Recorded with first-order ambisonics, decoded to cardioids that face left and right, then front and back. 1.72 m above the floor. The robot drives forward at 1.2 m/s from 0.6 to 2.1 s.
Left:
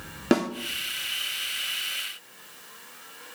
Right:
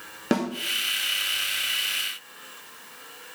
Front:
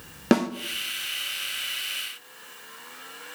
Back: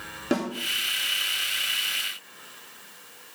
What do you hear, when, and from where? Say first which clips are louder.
0.3 s a snare drum: left 2 dB, front 5 dB; 15° left, 1.0 m